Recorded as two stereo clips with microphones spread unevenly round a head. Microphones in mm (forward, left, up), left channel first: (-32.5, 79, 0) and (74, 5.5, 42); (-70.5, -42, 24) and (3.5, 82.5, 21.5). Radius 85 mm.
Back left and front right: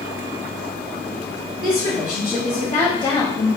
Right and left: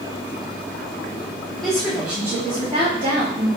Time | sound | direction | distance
1.6 | a woman speaking | 155° left | 1.6 m